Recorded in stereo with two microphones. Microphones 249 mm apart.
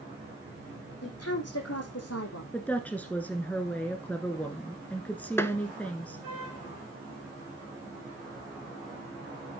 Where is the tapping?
10° left (ahead or behind), 0.9 m.